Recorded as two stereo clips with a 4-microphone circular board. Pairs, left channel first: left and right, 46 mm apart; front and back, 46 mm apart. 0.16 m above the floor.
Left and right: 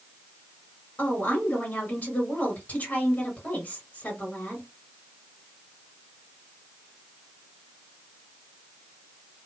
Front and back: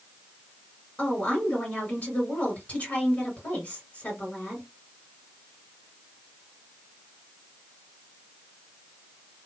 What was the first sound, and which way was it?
A woman speaking, 50° left.